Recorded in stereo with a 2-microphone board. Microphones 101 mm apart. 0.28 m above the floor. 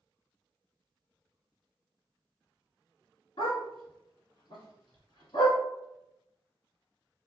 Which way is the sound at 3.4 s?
60° left (ahead or behind).